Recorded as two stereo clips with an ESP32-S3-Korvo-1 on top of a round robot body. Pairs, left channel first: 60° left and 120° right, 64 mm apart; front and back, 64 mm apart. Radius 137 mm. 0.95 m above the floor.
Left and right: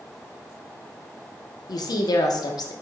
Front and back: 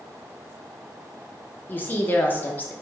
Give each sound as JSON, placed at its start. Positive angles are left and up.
{"t": 1.7, "sound": "a woman speaking", "azimuth_deg": 60, "distance_m": 0.6}